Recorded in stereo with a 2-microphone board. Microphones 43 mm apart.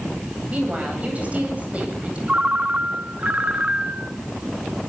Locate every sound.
0.5 s a woman speaking: 30° right (ahead or behind), 9 m
2.3 s a ringtone: 30° right (ahead or behind), 1.1 m